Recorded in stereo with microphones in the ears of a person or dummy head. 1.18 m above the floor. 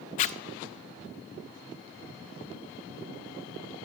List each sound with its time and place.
0.2 s a zipper: 40° left (ahead or behind), 0.6 m